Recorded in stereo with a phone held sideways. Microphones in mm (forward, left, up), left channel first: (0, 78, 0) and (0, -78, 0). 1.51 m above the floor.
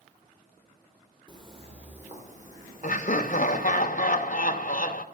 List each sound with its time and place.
1.3 s footsteps: 30° right (ahead or behind), 1.9 m; by 3.8 s 65° right (ahead or behind), 5 m
2.8 s laughter: 55° left (ahead or behind), 0.7 m